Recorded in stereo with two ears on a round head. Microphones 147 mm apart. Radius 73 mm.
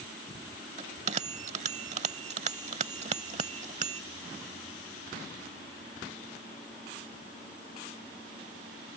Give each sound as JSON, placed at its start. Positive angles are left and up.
{"t": 0.8, "sound": "a bell", "side_deg": -45}